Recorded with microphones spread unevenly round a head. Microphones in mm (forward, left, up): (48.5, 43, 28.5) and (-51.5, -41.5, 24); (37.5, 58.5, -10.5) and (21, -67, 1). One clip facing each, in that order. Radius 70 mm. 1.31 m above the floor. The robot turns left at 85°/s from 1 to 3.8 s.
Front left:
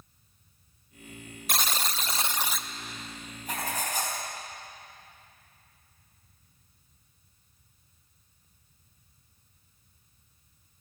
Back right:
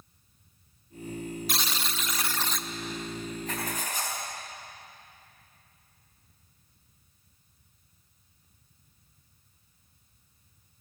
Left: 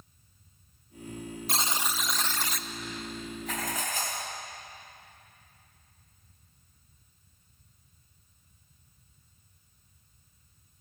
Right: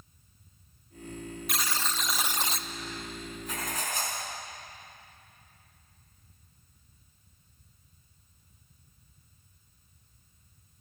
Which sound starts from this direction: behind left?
Writing, at 3.5 s.